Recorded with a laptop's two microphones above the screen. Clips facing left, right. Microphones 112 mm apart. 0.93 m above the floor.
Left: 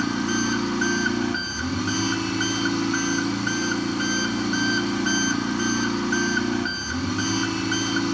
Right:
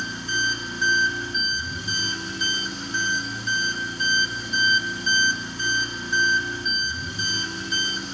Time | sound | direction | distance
0.0 | an engine running | 75° left (ahead or behind) | 2.5 m